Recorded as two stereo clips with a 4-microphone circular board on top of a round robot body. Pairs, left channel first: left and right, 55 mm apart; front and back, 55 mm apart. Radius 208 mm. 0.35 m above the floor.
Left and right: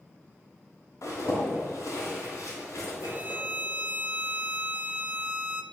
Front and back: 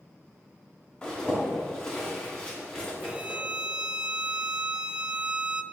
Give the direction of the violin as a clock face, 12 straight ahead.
4 o'clock.